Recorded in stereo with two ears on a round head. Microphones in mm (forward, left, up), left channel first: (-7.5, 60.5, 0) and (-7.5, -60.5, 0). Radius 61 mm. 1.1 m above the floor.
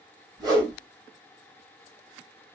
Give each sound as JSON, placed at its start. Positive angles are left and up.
{"t": 0.4, "sound": "a whoosh", "side_deg": -30, "distance_m": 1.8}